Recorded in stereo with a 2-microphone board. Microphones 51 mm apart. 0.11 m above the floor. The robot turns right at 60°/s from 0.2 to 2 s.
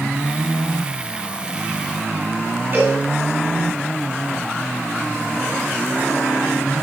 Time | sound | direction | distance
2.7 | a cowbell | 40° right (ahead or behind) | 4.5 m